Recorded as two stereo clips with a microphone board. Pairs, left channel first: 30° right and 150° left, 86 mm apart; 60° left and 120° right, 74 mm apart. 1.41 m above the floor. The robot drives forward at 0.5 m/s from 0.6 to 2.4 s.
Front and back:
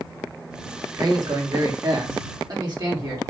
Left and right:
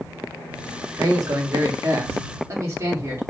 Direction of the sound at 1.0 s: 165° right.